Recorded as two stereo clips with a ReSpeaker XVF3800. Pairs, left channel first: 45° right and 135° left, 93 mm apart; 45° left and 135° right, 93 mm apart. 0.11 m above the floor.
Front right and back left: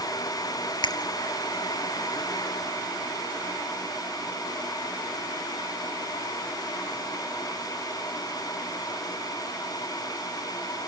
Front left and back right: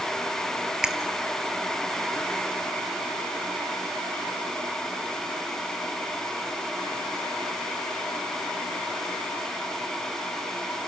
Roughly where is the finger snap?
Ahead right.